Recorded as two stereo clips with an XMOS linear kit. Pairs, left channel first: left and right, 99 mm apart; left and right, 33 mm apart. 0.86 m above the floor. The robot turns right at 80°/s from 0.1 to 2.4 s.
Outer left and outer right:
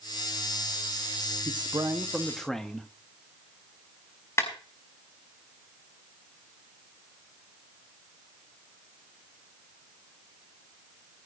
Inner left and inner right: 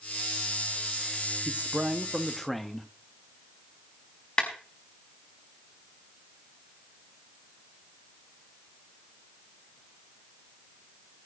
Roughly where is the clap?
Left.